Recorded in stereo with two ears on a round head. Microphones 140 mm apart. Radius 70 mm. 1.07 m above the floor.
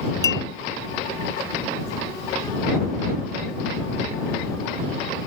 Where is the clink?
20° left (ahead or behind).